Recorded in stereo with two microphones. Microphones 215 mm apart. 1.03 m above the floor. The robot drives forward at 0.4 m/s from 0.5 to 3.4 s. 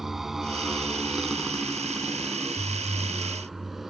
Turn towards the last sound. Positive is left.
turn(degrees=0)  # may be behind; listen again after turning